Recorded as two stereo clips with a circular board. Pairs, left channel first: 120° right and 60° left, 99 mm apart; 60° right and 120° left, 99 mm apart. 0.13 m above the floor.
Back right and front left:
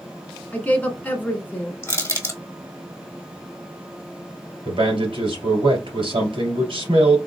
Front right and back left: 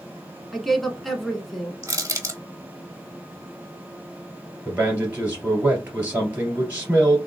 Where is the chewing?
I don't hear chewing.